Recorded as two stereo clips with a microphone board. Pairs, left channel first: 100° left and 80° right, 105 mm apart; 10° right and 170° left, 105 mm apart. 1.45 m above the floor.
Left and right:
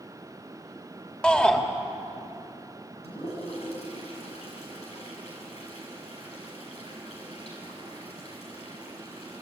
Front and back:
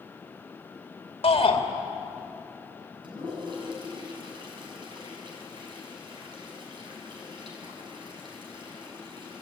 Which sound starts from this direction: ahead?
A shout, at 1.2 s.